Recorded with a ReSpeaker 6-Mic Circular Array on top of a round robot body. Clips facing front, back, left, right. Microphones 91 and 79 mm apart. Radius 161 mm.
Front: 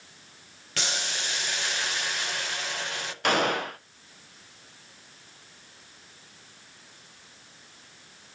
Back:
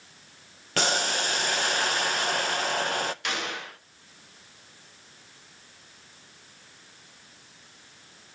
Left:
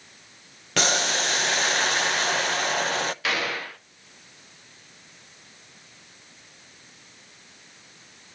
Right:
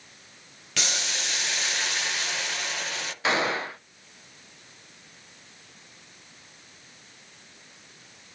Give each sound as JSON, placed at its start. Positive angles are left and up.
{"t": 0.8, "sound": "boiling", "azimuth_deg": 135, "distance_m": 0.6}
{"t": 3.2, "sound": "a gunshot", "azimuth_deg": -30, "distance_m": 0.9}